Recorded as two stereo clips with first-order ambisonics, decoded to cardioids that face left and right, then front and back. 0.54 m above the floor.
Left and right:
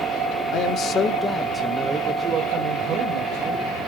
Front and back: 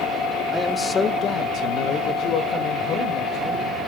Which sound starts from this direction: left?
A man speaking, at 0.5 s.